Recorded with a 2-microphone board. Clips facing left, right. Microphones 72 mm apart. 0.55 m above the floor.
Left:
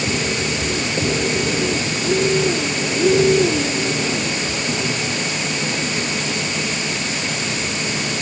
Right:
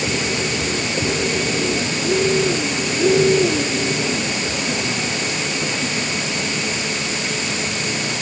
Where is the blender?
I don't hear a blender.